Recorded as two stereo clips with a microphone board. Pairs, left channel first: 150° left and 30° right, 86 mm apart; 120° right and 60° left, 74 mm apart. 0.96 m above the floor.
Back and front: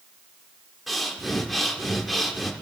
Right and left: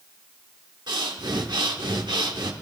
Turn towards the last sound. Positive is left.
turn(degrees=60)